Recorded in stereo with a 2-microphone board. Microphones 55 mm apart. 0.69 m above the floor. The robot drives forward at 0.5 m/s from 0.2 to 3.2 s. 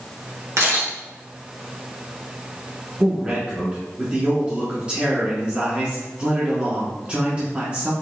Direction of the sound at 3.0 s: 20° right (ahead or behind).